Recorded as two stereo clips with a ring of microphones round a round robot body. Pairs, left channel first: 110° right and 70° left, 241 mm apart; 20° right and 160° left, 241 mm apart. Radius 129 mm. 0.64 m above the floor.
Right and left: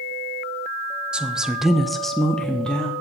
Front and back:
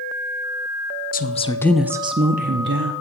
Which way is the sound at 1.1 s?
15° right.